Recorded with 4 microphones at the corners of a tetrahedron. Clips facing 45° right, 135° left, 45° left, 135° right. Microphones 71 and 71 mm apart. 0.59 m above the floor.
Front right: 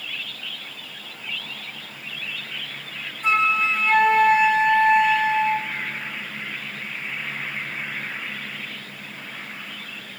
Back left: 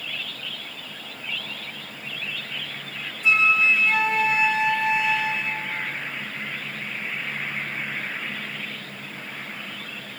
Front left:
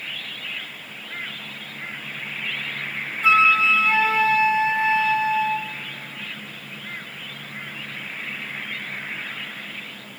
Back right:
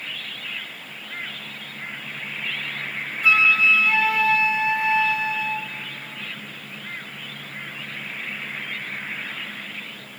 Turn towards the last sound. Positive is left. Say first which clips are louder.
# even, front left 2 dB
turn(degrees=-15)